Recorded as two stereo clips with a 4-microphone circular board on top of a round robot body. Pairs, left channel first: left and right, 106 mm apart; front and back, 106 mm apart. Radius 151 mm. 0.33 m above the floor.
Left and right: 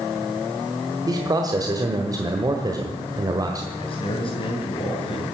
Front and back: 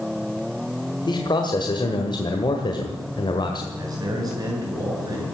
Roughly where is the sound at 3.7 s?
Behind left.